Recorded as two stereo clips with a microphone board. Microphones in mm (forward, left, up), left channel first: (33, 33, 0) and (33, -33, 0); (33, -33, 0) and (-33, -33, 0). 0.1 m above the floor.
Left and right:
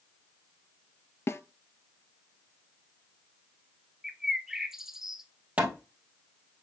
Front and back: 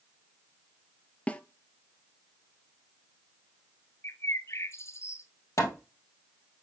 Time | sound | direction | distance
1.3 | a snare drum | 60° left | 0.6 m
4.0 | a bird | 10° right | 0.9 m
5.6 | hammering | 25° right | 2.0 m